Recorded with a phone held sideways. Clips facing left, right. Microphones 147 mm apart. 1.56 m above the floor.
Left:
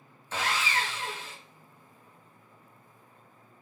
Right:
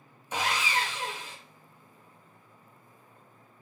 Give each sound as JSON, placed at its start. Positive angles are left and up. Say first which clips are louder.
{"t": 0.3, "sound": "sawing", "louder": "right 1 dB", "side_deg": -15, "distance_m": 0.6}